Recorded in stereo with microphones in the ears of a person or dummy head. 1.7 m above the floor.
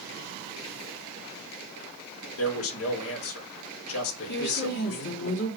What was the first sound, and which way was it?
A man speaking, 80° left.